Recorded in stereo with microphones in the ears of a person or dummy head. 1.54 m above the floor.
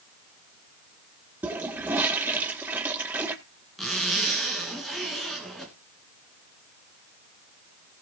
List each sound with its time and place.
1.4 s a toilet flushing: 10° right (ahead or behind), 1.5 m
3.8 s a zipper: centre (ahead or behind), 2.5 m